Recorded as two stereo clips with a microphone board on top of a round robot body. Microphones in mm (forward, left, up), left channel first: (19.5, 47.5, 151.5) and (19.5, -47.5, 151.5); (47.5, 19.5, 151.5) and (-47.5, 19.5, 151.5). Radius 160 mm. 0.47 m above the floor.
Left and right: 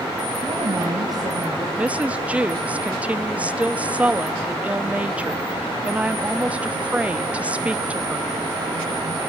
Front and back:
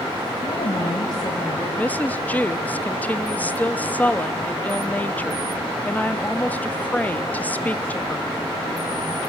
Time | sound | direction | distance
0.4 | a woman speaking | 40° right | 4 m
1.8 | a woman speaking | 40° right | 1.0 m